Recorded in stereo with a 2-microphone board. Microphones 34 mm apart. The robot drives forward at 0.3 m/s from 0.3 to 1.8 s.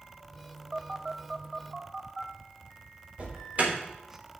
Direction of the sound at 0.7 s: 15° right (ahead or behind).